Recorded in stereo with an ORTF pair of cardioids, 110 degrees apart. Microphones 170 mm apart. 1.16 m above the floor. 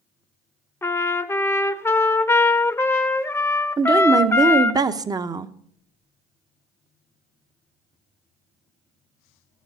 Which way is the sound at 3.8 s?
25° right.